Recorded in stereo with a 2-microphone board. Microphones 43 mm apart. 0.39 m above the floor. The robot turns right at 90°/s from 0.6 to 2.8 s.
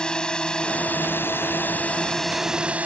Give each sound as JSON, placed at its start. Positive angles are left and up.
{"t": 0.0, "sound": "a drone", "azimuth_deg": 25}